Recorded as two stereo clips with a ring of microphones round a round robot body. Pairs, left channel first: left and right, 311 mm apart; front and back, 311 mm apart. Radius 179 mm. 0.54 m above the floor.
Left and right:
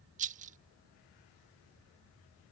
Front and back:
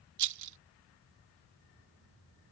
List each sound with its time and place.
0.2 s a rattle: 155° right